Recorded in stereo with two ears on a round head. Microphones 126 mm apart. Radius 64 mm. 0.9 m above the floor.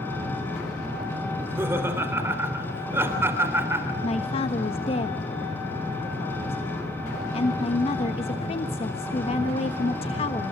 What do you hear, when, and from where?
0.0 s an engine running: 15° left (ahead or behind), 6.5 m
1.3 s laughter: 15° right (ahead or behind), 3 m
4.0 s a man speaking: 45° left (ahead or behind), 1.3 m